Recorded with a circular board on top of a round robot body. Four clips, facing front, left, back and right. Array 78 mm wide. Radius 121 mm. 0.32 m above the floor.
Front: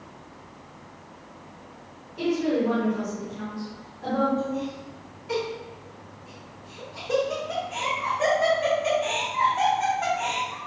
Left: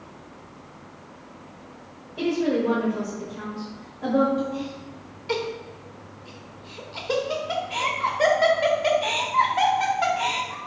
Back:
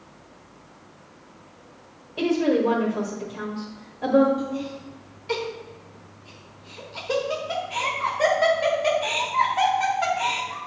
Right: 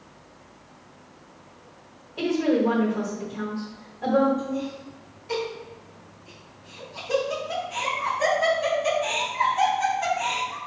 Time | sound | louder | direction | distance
2.2 | a woman speaking | right 1 dB, back 3 dB | 170° right | 1.6 m
4.4 | laughter | left 1 dB, even | 120° left | 1.8 m